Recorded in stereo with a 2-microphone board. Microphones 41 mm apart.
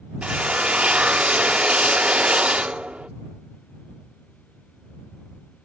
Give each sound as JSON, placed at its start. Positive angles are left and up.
{"t": 0.2, "sound": "a drill", "side_deg": -30}